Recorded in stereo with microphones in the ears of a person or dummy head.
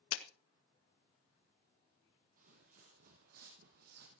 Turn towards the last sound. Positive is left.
turn(degrees=-60)  # may be behind; listen again after turning